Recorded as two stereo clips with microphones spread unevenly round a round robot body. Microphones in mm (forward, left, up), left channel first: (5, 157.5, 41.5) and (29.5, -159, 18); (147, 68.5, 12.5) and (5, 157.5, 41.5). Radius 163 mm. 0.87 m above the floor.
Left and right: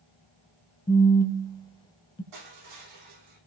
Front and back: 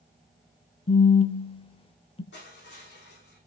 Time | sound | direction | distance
0.9 | a phone buzzing | 25° left | 0.7 m
2.3 | crushing | 75° right | 8.5 m